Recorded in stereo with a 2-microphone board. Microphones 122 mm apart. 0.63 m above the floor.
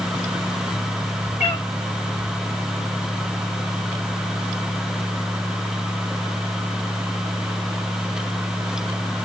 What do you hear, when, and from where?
1.4 s a cat meowing: 75° left (ahead or behind), 5.5 m